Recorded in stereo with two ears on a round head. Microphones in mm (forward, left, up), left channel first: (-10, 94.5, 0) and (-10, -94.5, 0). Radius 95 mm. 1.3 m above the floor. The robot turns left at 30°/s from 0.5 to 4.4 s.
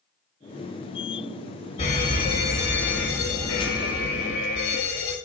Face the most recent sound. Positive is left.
turn(degrees=70)